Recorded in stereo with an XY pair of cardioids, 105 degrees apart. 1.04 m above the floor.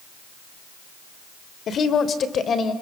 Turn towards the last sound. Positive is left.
turn(degrees=45)